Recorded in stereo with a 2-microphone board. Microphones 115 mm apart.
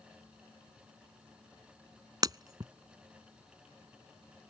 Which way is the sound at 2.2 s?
35° right (ahead or behind).